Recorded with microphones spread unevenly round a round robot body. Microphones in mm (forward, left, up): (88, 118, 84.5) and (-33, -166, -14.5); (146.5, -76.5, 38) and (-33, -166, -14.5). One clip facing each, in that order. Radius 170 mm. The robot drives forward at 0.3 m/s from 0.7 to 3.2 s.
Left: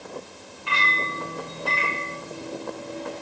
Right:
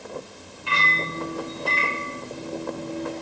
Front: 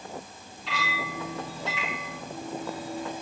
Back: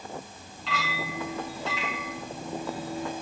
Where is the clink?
165° right, 8 m.